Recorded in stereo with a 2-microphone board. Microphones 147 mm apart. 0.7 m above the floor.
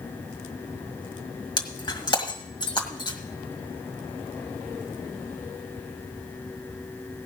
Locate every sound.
1.6 s breaking glass: 30° left (ahead or behind), 1.5 m